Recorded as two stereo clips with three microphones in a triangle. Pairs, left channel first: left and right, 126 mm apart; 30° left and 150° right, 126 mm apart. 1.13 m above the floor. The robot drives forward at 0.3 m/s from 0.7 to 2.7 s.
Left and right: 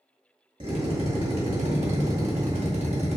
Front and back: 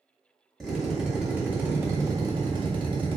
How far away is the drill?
About 0.9 m.